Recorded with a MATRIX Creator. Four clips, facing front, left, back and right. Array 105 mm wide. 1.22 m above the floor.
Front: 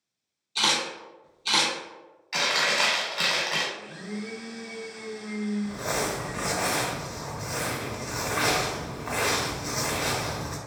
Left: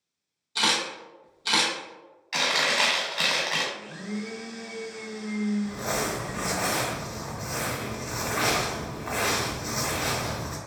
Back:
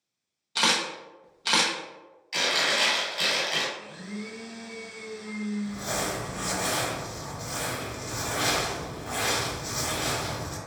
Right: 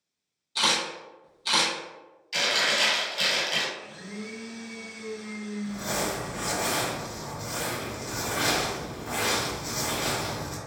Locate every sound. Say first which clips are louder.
0.6 s a camera shutter: even, back 1 dB; 165° left, 0.9 m
2.3 s chewing: left 1 dB, front 1 dB; 65° left, 1.4 m
3.7 s a blender: left 5 dB, front 2 dB; 65° left, 0.6 m
5.6 s crumpling: left 1 dB, front 2 dB; 40° left, 0.8 m